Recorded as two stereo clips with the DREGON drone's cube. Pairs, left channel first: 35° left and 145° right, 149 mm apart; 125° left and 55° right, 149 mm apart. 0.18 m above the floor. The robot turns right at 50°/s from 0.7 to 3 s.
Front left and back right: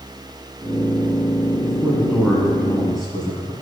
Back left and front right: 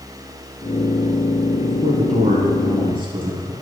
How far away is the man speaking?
About 2 m.